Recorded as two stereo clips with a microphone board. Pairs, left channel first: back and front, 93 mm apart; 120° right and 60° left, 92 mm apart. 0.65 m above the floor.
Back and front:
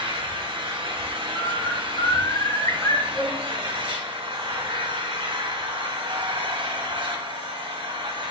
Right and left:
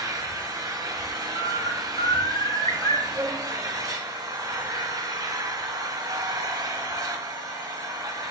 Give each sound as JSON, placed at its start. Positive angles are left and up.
{"t": 0.0, "sound": "an engine running", "azimuth_deg": 15, "distance_m": 1.2}
{"t": 1.4, "sound": "a bird", "azimuth_deg": -145, "distance_m": 0.9}
{"t": 3.1, "sound": "a violin", "azimuth_deg": 95, "distance_m": 2.5}